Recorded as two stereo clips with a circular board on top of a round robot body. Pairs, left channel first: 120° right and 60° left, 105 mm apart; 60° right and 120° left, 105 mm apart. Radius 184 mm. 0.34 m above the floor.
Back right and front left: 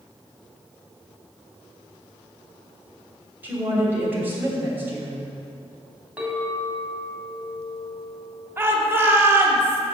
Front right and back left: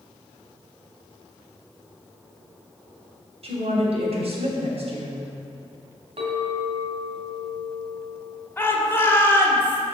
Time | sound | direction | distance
3.4 | a woman speaking | 130° left | 3 m
6.2 | a clink | 135° left | 2.5 m
8.6 | a shout | straight ahead | 1.8 m